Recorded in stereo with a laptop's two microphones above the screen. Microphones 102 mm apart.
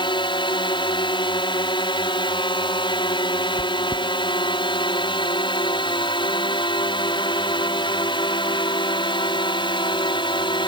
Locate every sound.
0.0 s a drone: 50° left (ahead or behind)
3.6 s chewing: 35° right (ahead or behind)